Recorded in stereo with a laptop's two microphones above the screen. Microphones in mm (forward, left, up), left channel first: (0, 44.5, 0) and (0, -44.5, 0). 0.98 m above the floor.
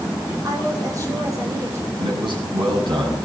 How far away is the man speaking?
About 6.5 m.